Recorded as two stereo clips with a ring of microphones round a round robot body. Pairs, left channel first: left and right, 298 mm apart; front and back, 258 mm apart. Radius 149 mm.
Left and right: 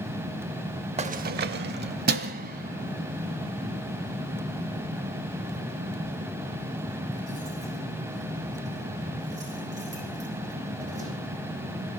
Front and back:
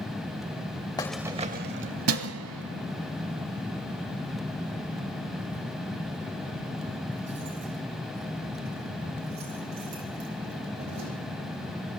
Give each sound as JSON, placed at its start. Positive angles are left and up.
{"t": 1.0, "sound": "keys jangling", "azimuth_deg": -55, "distance_m": 0.6}